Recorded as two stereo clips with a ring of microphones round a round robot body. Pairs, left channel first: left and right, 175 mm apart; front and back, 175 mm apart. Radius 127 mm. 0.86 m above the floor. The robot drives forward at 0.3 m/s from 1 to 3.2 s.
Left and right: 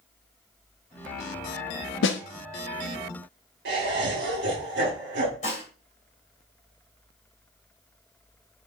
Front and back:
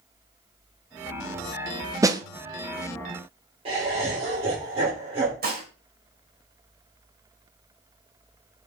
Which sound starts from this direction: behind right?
Laughter, at 3.6 s.